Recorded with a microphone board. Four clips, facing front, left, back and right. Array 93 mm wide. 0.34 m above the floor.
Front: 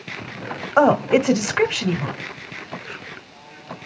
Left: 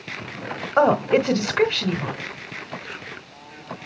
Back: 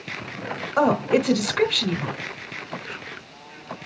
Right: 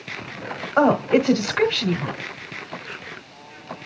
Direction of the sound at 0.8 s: 10° left.